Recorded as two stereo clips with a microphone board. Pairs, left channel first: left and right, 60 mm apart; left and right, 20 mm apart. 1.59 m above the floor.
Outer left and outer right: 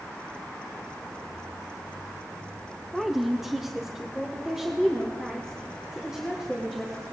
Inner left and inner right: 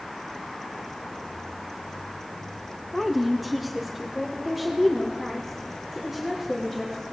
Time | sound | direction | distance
2.9 | a woman speaking | centre (ahead or behind) | 0.5 m